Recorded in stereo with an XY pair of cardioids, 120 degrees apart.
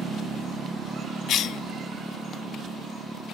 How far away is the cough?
About 0.5 m.